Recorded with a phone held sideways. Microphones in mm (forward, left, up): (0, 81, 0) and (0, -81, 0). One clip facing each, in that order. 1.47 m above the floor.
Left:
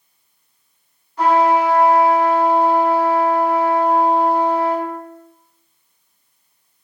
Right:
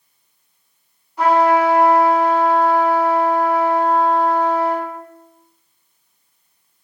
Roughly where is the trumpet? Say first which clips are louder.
Even; centre.